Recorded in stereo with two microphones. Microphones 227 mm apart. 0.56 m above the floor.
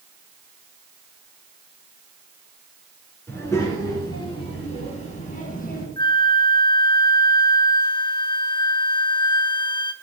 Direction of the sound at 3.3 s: 10° left (ahead or behind).